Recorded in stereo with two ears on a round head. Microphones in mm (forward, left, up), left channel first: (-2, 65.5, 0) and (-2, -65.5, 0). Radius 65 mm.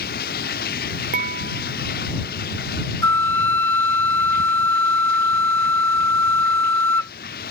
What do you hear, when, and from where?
0.0 s running water: 75° left (ahead or behind)
1.1 s dishes clattering: 65° right (ahead or behind)
3.0 s a flute: 15° left (ahead or behind)